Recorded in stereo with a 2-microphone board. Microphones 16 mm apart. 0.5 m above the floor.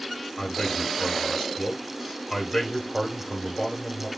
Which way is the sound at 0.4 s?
40° left (ahead or behind).